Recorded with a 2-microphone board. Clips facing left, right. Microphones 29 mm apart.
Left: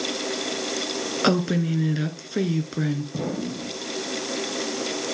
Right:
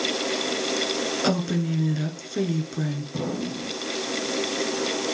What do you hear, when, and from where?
1.2 s a woman speaking: 25° left (ahead or behind), 1.7 m
3.1 s an explosion: 15° left (ahead or behind), 3 m